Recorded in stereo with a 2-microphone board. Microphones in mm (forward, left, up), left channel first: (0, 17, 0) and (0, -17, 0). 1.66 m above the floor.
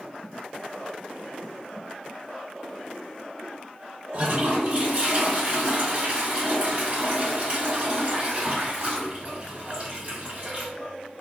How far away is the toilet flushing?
About 1.4 m.